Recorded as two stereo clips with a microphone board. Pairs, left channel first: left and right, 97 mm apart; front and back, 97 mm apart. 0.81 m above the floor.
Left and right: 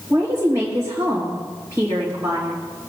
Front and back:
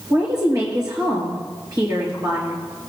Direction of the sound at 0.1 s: 145° right.